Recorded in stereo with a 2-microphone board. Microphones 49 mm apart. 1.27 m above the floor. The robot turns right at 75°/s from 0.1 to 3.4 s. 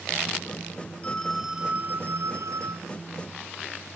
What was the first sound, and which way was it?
A phone ringing, 155° left.